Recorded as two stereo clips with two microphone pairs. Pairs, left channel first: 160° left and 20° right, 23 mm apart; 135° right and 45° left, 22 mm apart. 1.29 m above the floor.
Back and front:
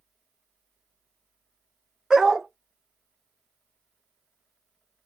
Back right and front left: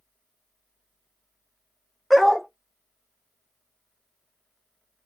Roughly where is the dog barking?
Ahead right.